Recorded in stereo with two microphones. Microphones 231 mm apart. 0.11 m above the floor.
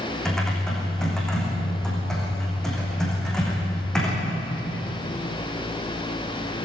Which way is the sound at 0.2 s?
Centre (ahead or behind).